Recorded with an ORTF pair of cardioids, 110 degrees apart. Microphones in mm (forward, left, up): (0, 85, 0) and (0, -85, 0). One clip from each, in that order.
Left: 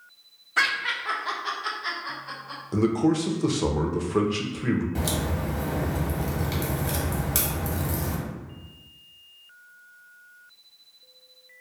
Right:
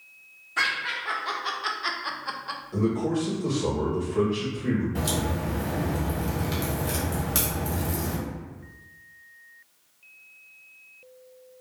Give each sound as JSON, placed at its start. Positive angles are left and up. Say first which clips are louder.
{"t": 0.6, "sound": "laughter", "louder": "left 2 dB", "azimuth_deg": 25, "distance_m": 0.9}
{"t": 2.7, "sound": "a man speaking", "louder": "left 4 dB", "azimuth_deg": 60, "distance_m": 0.7}
{"t": 5.0, "sound": "a crack", "louder": "right 1 dB", "azimuth_deg": 10, "distance_m": 1.1}